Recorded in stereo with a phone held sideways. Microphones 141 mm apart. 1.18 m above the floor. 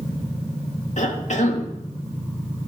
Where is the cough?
60° left (ahead or behind), 2 m.